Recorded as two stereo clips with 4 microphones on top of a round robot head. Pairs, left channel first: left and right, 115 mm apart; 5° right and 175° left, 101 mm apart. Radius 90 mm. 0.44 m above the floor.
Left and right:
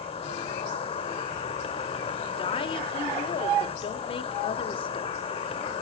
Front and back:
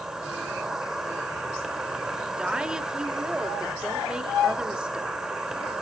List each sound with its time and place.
0.0 s an insect: 95° left, 2 m
2.3 s a woman speaking: 95° left, 1.9 m